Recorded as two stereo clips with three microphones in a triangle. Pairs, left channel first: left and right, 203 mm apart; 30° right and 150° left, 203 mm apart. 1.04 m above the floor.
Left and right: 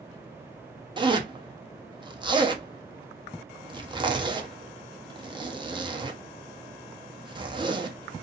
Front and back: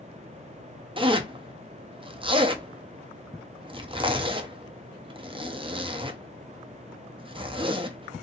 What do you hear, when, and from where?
1.0 s a zipper: 150° right, 0.5 m